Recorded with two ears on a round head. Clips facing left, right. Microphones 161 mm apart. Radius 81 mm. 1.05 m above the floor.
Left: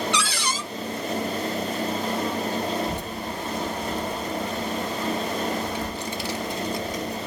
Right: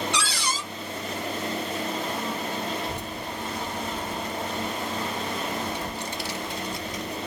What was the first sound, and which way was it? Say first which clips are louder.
A cupboard door: left 2 dB; 45° left (ahead or behind).